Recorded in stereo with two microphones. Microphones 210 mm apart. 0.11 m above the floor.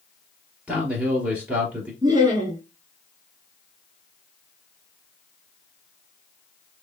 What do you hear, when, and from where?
0.7 s a man speaking: 5° right (ahead or behind), 2.5 m
2.0 s laughter: 20° right (ahead or behind), 1.3 m